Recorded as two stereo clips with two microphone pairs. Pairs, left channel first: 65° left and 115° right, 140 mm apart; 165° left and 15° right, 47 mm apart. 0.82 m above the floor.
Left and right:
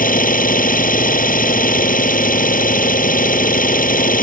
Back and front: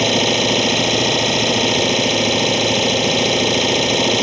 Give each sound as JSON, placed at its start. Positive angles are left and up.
{"t": 0.0, "sound": "an engine running", "azimuth_deg": 75}